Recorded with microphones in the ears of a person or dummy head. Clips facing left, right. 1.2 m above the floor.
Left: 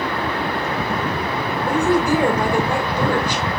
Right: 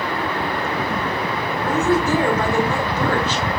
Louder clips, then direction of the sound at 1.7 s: Left 1 dB; 20° left (ahead or behind).